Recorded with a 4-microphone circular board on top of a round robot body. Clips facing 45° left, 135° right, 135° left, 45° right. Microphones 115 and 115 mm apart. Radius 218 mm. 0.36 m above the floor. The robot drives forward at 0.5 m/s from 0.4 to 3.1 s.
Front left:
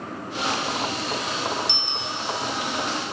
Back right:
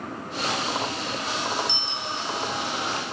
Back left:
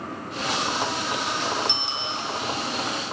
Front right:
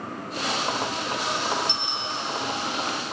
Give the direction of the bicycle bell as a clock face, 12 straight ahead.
10 o'clock.